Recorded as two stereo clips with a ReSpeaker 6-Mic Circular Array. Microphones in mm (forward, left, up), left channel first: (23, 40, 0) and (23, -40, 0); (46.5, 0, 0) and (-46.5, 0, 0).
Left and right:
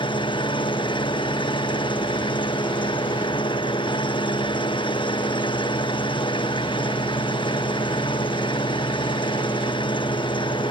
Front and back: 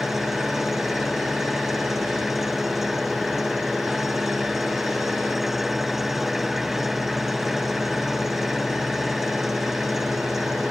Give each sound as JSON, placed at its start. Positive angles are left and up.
{"t": 0.0, "sound": "an engine running", "azimuth_deg": 95}